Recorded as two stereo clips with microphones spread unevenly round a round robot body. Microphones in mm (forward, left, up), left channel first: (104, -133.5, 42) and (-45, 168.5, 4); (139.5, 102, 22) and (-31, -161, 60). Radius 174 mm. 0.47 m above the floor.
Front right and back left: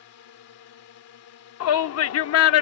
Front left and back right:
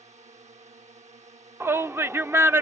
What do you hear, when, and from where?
0.0 s a drone: 60° right
1.6 s a shout: 35° right